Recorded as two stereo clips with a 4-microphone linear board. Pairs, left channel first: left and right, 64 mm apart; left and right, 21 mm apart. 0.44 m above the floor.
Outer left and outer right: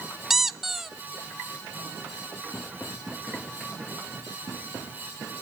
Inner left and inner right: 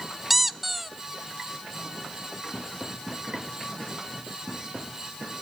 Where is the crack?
I don't hear a crack.